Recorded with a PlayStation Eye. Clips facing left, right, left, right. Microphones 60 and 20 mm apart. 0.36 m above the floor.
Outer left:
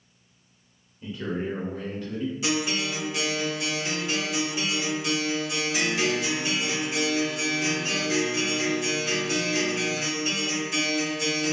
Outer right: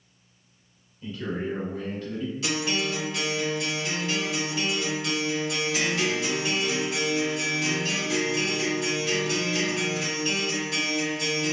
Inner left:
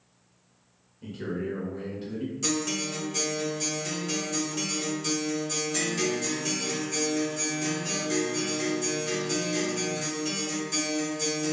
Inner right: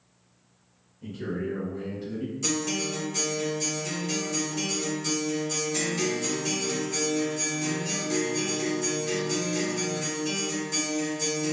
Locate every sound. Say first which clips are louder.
1.0 s a man speaking: outer left 1 dB, inner right 1 dB; 15° left (ahead or behind), 0.8 m; by 2.3 s 25° left (ahead or behind), 1.7 m
2.4 s a guitar: even, inner right 1 dB; 15° left (ahead or behind), 1.2 m